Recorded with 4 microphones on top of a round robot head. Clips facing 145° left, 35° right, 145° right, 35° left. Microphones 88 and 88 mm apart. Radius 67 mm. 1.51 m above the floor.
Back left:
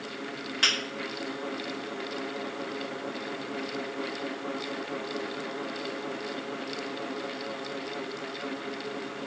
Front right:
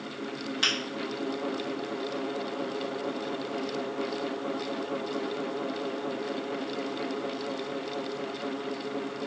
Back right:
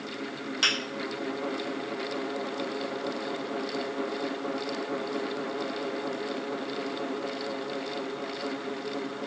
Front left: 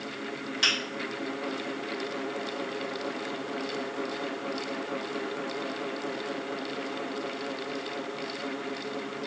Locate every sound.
0.6 s a finger snap: 105° right, 1.2 m